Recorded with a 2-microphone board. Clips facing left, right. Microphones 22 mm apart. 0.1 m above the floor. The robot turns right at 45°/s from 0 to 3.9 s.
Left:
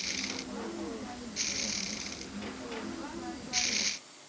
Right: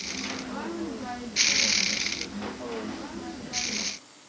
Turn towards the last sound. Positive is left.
No sound to turn to.